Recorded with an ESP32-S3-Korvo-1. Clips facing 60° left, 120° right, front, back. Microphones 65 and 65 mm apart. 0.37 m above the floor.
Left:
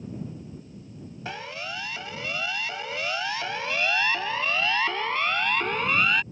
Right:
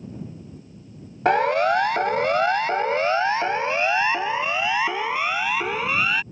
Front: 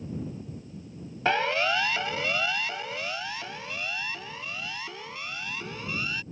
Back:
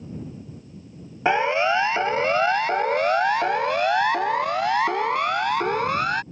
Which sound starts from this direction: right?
A siren, at 1.2 s.